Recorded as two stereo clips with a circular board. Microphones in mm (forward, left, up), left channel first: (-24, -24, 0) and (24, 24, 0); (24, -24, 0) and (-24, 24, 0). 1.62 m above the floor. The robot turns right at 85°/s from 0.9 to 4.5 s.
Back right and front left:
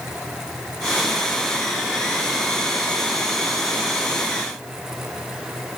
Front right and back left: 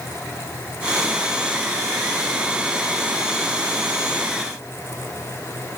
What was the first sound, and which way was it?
Only background noise.